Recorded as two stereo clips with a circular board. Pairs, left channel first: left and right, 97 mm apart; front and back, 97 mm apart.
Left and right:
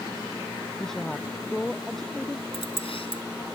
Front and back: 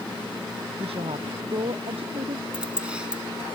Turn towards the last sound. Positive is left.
turn(degrees=100)